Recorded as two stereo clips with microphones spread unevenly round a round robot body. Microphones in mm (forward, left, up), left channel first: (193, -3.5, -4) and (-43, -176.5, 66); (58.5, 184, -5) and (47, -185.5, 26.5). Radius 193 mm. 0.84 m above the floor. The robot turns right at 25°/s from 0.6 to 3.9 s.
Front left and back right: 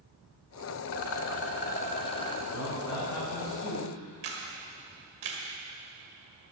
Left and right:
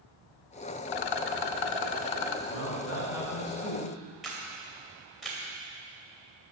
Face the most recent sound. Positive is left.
turn(degrees=180)